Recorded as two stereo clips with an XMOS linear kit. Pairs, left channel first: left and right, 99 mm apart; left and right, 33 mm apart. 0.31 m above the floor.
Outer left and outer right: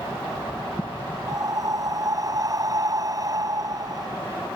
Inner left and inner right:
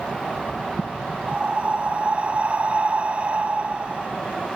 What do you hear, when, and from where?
1.3 s breathing: 40° right (ahead or behind)